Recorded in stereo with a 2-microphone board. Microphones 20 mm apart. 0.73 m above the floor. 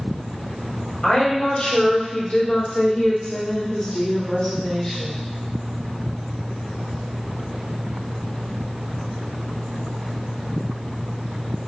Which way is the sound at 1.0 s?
60° left (ahead or behind).